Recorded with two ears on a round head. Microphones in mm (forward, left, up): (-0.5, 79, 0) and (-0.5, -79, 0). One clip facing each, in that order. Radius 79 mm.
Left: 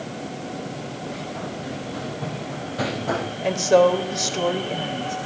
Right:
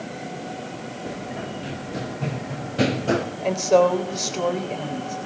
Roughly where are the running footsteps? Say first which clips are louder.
Right 1 dB; right.